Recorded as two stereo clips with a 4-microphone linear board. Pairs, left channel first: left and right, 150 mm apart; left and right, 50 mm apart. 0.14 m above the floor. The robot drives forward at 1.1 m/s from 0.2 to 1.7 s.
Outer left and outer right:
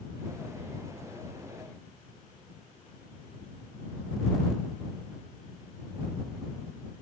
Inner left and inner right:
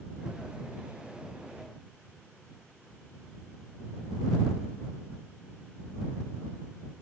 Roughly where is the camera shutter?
I don't hear a camera shutter.